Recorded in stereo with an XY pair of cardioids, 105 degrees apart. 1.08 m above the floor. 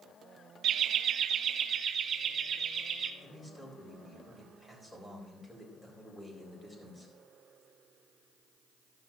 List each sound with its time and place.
0.6 s laughter: 65° right, 0.5 m; by 3.1 s 50° right, 1.9 m
3.2 s a man speaking: 20° left, 4 m